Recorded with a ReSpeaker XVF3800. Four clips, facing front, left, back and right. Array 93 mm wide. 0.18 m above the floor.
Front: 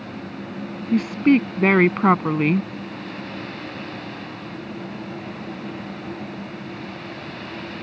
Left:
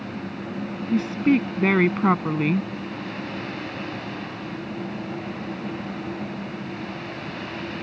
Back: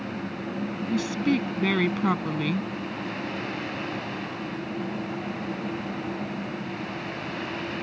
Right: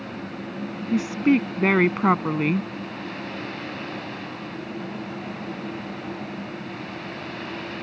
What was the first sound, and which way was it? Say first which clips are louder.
A woman speaking: even, front 8 dB; 15° right.